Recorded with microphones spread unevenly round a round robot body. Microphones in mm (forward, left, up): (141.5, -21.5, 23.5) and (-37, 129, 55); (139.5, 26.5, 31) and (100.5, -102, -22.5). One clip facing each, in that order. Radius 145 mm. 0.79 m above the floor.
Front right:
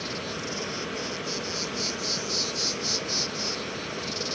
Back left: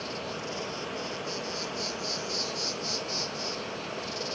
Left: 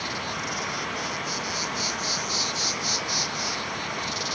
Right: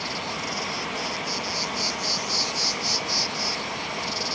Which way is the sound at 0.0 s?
75° right.